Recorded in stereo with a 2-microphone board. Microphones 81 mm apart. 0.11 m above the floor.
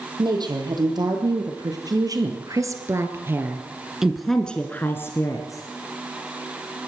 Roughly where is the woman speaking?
Right.